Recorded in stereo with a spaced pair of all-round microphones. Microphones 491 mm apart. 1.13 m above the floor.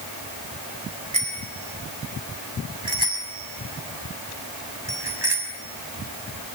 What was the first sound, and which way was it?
A bicycle bell, 85° right.